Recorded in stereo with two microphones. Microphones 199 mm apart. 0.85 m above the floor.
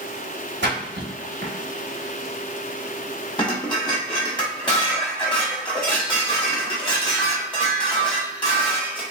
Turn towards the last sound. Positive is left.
turn(degrees=25)  # may be behind; listen again after turning